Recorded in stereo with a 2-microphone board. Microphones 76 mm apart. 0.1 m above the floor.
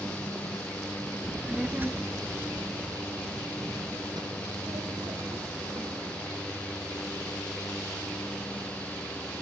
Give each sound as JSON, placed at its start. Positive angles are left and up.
{"t": 1.2, "sound": "a child speaking", "side_deg": 5, "distance_m": 0.7}